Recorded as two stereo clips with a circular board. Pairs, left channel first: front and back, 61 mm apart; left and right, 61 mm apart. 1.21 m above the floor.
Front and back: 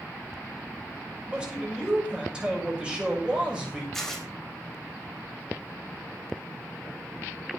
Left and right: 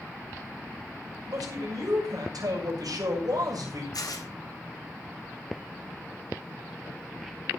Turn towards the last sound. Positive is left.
turn(degrees=85)